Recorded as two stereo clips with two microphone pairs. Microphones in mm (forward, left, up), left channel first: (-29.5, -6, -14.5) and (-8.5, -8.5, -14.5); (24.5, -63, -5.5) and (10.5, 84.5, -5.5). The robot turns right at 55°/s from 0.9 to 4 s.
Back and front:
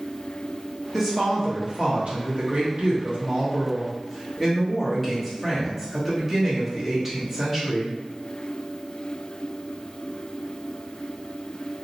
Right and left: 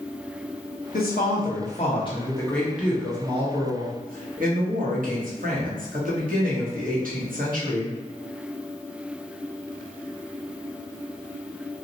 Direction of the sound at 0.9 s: 90° right.